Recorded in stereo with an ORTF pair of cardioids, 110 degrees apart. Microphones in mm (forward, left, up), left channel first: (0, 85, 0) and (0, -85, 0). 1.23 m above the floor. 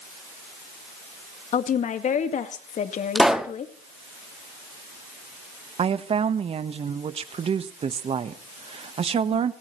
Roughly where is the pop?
Ahead.